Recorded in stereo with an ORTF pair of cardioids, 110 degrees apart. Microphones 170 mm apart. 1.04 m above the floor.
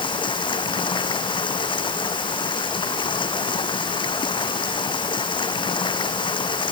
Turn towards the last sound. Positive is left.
turn(degrees=30)